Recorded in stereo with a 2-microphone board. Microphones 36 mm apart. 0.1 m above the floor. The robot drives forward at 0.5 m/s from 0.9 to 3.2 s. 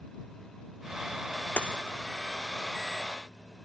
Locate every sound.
1.6 s a dropped coin: 45° left (ahead or behind), 0.9 m; by 1.8 s 40° left (ahead or behind), 1.0 m